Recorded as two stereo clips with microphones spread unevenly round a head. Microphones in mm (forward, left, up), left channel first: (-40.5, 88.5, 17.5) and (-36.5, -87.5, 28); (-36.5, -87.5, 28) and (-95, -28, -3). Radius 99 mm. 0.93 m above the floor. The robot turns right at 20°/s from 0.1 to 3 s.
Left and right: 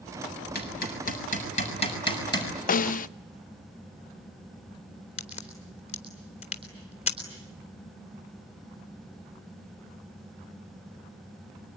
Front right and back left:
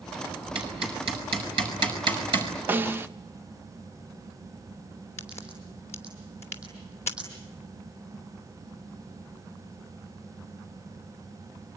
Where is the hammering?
120° left, 6.5 m; by 2.5 s 160° left, 6.5 m.